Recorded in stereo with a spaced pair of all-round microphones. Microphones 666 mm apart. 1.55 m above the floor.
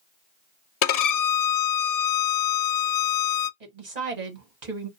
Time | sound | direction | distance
0.8 | a violin | 70° left (ahead or behind) | 0.5 m
3.6 | a woman speaking | 75° right (ahead or behind) | 1.4 m